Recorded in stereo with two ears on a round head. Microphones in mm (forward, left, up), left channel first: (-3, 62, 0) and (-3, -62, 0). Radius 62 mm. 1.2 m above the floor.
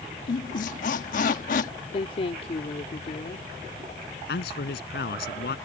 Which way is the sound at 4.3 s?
85° left.